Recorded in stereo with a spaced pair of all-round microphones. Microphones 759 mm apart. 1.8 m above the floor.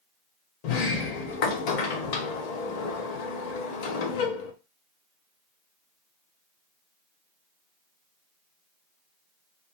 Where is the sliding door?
60° left (ahead or behind), 0.5 m.